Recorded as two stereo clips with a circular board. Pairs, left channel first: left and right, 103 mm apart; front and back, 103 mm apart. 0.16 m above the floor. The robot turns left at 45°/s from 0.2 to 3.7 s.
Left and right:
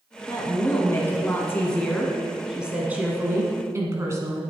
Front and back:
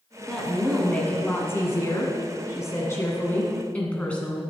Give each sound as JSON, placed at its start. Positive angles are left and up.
{"t": 0.3, "sound": "a woman speaking", "azimuth_deg": 90, "distance_m": 1.6}